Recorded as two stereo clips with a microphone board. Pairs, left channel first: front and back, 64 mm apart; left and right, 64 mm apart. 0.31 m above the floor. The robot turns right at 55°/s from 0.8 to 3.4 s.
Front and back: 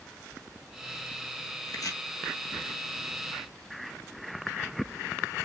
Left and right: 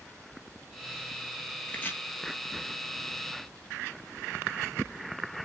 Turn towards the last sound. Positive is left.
turn(degrees=115)